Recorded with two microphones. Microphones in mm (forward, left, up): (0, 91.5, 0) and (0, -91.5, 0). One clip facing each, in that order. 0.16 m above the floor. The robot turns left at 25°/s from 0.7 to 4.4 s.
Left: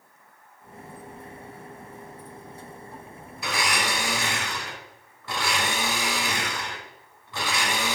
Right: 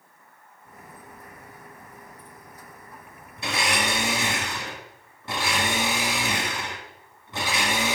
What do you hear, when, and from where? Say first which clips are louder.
3.4 s a blender: right 1 dB; 25° right (ahead or behind), 1.3 m; by 8.0 s 20° right (ahead or behind), 1.3 m